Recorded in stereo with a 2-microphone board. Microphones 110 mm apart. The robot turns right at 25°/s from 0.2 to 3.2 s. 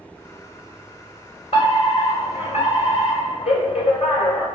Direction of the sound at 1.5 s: 60° left.